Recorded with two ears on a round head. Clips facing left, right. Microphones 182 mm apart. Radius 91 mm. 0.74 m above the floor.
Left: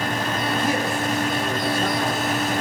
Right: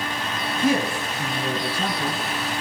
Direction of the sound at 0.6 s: 70° right (ahead or behind).